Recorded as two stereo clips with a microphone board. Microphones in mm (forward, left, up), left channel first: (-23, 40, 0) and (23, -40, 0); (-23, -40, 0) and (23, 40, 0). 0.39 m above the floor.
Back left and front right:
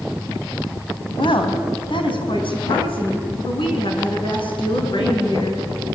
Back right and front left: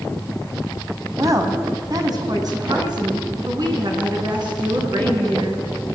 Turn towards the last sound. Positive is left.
turn(degrees=95)